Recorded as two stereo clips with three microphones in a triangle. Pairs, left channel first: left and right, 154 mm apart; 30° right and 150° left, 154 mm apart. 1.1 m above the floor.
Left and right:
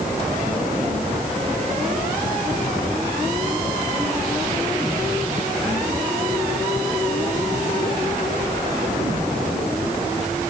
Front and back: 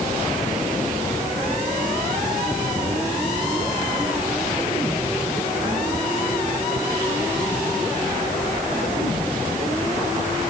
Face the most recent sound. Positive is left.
No sound to turn to.